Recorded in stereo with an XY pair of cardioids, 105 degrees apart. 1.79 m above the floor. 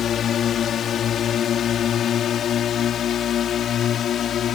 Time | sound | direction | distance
0.0 | a drone | 60° left | ?